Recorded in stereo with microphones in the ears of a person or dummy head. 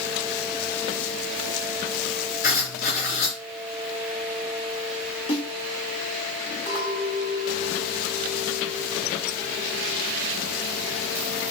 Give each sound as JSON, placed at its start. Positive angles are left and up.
{"t": 2.4, "sound": "writing", "side_deg": 50, "distance_m": 3.0}
{"t": 5.3, "sound": "a snare drum", "side_deg": 25, "distance_m": 4.0}
{"t": 6.7, "sound": "a clink", "side_deg": 40, "distance_m": 3.5}